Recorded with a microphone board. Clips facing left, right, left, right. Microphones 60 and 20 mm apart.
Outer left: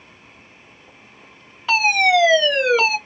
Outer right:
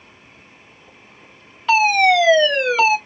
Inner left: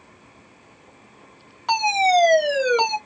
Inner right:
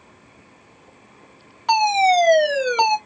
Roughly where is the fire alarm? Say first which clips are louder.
Outer right 2 dB, inner right 2 dB; centre.